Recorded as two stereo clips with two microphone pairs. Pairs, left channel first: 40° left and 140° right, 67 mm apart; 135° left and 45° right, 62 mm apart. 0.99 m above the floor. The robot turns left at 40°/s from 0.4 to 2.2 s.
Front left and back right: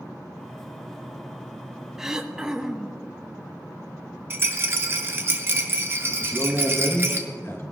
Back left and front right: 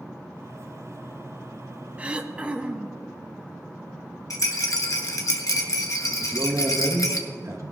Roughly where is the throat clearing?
Right.